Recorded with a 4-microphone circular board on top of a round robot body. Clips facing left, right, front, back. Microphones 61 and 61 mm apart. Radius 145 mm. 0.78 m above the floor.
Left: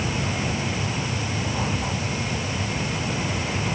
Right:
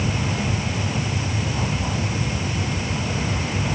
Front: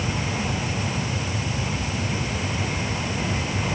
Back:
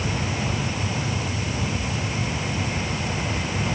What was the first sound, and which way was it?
Only background noise.